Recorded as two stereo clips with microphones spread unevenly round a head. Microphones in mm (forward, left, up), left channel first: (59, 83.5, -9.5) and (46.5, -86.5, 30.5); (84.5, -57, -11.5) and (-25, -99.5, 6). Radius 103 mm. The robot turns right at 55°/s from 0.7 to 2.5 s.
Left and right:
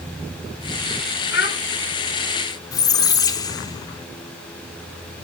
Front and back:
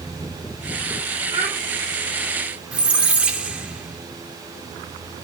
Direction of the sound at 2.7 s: 160° left.